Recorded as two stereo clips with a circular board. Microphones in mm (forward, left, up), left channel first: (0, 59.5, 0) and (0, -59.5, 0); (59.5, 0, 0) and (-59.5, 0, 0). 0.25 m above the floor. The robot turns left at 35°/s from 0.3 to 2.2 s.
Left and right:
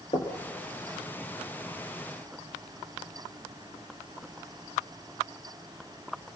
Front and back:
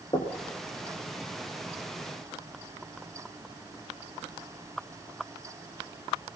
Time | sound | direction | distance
0.1 | knocking | 50° left | 4.5 m